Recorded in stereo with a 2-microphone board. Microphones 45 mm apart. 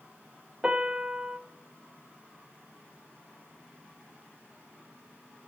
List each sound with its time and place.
0.6 s a piano: 15° right (ahead or behind), 0.7 m